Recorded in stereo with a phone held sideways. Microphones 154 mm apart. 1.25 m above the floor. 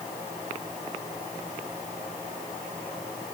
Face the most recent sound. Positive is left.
No sound to turn to.